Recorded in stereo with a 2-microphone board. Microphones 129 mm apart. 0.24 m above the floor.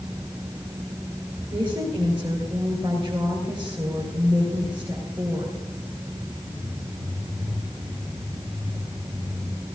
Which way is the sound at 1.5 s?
35° right (ahead or behind).